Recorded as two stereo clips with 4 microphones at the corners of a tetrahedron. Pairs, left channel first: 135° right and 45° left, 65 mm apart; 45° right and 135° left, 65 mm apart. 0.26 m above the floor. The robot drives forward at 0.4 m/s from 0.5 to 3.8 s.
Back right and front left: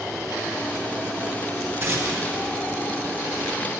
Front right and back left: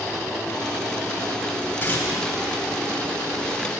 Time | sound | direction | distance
1.8 | tearing paper | straight ahead | 1.3 m